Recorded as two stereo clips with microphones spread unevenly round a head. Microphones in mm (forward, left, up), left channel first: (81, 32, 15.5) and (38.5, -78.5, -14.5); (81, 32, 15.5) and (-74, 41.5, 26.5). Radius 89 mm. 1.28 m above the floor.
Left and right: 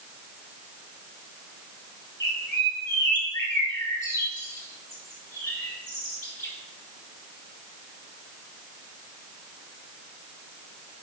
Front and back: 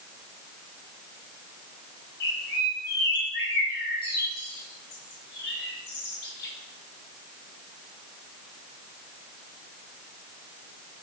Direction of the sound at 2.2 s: 5° left.